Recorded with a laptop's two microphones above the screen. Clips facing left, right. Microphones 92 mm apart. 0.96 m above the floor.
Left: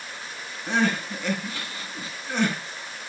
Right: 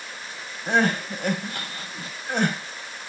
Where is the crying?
55° right (ahead or behind), 2.5 m.